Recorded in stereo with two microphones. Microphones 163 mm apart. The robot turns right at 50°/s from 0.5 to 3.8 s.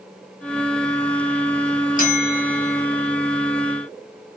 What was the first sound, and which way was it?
A bell, 55° left.